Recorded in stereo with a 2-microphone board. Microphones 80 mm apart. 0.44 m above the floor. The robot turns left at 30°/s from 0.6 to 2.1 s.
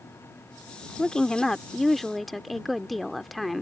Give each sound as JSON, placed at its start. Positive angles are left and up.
{"t": 1.0, "sound": "a woman speaking", "side_deg": 10}